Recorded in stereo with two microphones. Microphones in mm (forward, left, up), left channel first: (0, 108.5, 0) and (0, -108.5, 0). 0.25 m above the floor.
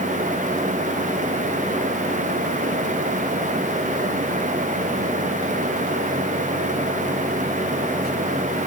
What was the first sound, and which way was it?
Only background noise.